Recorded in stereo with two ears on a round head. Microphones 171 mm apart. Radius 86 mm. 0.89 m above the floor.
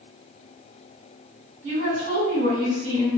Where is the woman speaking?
75° right (ahead or behind), 1.5 m.